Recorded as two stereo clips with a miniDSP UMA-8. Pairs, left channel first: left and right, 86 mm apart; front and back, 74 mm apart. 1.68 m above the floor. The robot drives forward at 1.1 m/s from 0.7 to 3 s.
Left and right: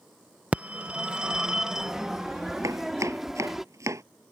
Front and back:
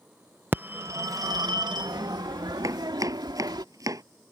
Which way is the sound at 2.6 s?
140° right.